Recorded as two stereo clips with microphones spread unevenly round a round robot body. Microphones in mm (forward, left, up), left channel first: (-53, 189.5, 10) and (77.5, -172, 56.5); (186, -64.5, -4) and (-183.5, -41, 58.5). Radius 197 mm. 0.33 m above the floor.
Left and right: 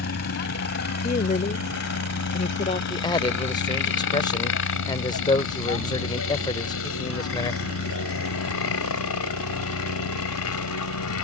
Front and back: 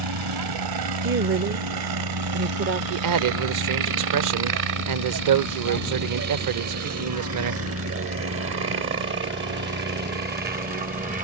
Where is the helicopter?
165° left; by 11.2 s 105° left.